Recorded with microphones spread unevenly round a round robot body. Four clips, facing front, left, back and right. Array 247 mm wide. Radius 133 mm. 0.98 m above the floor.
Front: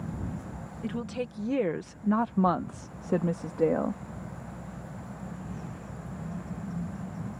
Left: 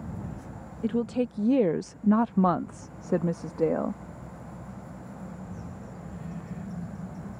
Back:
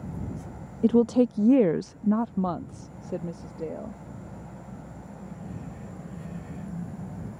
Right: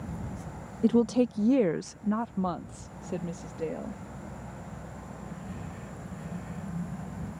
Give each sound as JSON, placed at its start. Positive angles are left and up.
{"t": 0.8, "sound": "a woman speaking", "azimuth_deg": -160}